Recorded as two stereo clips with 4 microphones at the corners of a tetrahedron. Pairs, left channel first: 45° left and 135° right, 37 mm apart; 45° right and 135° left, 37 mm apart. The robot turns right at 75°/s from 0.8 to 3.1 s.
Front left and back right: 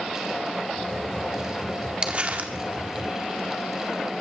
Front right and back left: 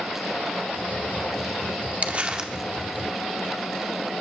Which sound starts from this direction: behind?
Crumpling, at 2.0 s.